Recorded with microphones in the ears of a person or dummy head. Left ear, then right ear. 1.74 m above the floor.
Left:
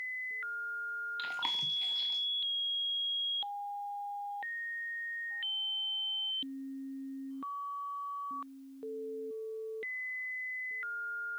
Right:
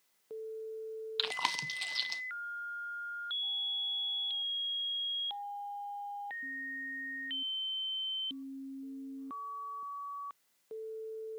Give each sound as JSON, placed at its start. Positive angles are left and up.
{"t": 1.2, "sound": "chewing", "side_deg": -45, "distance_m": 1.0}